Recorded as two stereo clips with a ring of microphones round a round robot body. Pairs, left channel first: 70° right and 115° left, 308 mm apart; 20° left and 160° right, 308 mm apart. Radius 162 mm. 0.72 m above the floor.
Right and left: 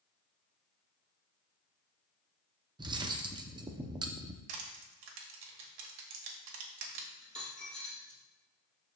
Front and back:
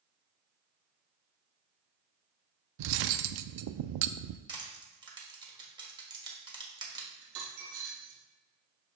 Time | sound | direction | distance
2.8 | cutlery clinking | 170° right | 0.5 m
4.5 | crushing | 125° left | 1.5 m
7.2 | a dropped coin | 155° right | 3 m